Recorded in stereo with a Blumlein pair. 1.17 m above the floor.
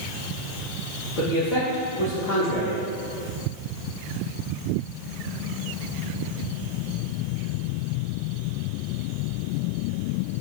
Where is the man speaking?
30° left, 0.8 m.